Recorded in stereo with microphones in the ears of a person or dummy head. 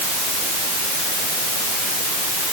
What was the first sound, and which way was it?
Only background noise.